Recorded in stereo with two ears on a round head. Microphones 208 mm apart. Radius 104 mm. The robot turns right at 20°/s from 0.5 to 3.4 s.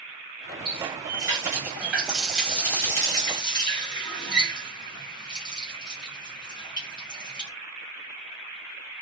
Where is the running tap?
25° right (ahead or behind), 1.2 m; by 7.5 s 20° left (ahead or behind), 1.2 m.